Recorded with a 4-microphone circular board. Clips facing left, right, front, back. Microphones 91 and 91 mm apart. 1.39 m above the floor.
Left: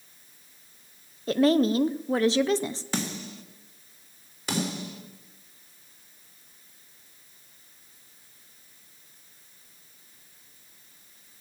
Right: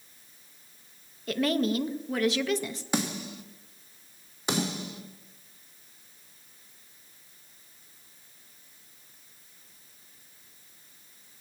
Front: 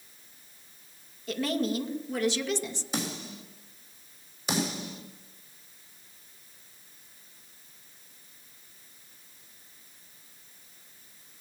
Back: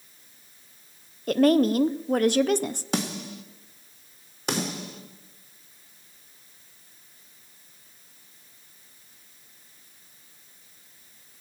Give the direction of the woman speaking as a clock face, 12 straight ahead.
7 o'clock.